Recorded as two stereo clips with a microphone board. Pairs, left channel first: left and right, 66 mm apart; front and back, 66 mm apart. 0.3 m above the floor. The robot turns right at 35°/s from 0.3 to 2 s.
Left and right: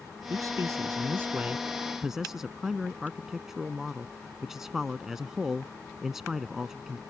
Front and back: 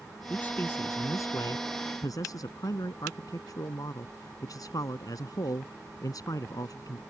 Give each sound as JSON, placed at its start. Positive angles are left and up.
{"t": 0.3, "sound": "a man speaking", "azimuth_deg": -65}